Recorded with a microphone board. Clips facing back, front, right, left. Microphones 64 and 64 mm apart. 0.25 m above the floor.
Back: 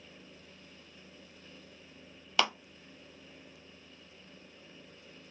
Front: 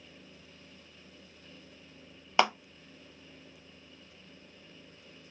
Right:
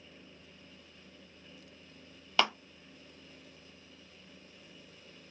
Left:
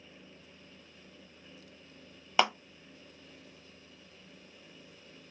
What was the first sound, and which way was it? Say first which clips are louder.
A clap: front 5 dB, left 2 dB; 35° left.